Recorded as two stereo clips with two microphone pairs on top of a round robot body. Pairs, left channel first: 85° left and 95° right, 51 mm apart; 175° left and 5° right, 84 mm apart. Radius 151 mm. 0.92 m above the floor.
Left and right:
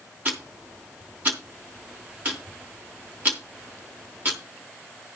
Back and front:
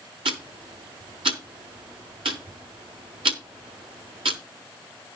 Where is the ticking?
30° right, 0.7 m.